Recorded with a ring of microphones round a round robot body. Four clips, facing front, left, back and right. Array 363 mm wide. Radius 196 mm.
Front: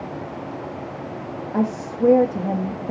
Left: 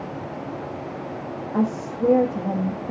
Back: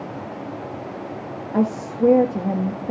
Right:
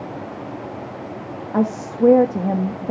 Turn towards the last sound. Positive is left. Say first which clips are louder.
# right 4 dB, back 2 dB
turn(degrees=-110)